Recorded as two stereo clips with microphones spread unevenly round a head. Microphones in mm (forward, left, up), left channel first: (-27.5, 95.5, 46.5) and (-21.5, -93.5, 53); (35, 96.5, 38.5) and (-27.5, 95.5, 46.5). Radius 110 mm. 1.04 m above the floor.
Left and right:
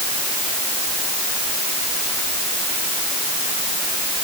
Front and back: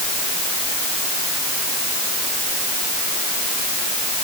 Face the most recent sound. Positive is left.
No sound to turn to.